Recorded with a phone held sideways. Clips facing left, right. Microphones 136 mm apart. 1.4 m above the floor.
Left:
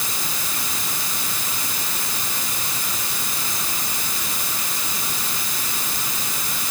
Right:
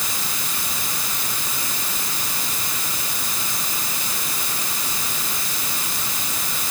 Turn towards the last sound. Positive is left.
No sound to turn to.